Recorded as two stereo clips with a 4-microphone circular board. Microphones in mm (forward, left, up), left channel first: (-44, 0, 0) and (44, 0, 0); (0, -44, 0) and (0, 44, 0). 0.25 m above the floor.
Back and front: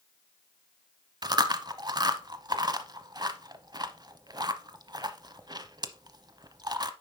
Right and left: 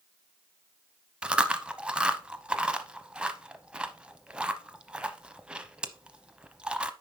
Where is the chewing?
15° left, 0.7 m.